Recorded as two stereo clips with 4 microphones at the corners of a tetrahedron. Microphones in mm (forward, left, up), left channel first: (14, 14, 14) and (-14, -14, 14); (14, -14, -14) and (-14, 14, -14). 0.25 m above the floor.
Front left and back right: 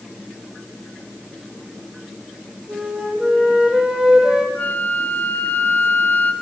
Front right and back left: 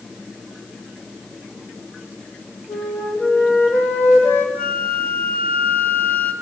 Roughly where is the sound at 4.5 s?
Ahead.